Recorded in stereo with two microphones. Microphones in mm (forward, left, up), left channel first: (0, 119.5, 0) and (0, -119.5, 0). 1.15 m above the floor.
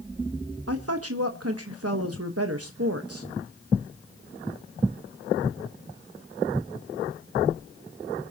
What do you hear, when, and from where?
0.7 s a woman speaking: 75° right (ahead or behind), 1.2 m